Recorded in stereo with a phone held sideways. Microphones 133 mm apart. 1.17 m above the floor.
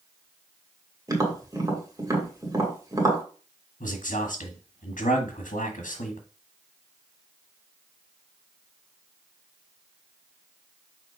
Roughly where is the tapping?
Right.